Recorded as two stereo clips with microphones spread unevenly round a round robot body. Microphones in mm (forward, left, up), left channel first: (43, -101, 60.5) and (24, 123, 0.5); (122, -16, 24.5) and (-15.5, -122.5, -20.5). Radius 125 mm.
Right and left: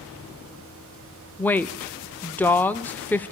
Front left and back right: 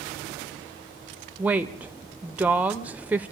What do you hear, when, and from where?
1.4 s a woman speaking: 175° left, 0.8 m